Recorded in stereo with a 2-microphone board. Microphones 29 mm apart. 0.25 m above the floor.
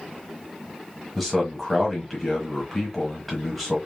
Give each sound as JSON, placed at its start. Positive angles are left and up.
{"t": 1.1, "sound": "a man speaking", "side_deg": 0, "distance_m": 1.2}